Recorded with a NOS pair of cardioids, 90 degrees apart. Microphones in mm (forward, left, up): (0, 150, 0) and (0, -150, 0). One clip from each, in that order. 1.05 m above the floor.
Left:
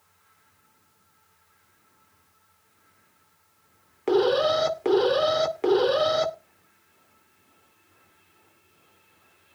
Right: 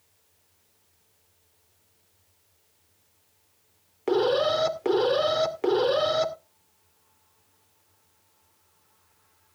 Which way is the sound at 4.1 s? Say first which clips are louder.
Left 2 dB; 10° left.